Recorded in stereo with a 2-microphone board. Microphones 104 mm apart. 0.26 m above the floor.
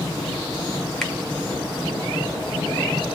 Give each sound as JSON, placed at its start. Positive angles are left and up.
{"t": 1.0, "sound": "a finger snap", "side_deg": 5, "distance_m": 1.8}